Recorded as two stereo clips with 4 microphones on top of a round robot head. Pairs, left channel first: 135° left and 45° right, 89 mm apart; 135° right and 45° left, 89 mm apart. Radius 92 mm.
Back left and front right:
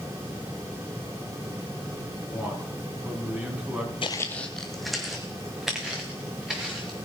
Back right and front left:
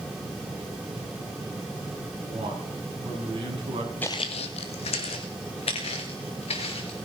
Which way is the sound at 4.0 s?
155° left.